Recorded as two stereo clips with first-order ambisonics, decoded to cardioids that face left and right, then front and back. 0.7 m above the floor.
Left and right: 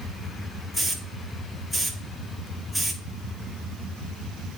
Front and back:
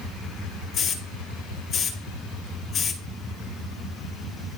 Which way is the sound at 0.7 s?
5° right.